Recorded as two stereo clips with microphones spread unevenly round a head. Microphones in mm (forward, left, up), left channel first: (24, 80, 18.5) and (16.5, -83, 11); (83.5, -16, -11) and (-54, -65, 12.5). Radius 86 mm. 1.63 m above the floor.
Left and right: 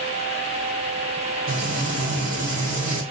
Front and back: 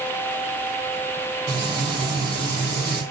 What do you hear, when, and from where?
1.5 s frying: 110° right, 3 m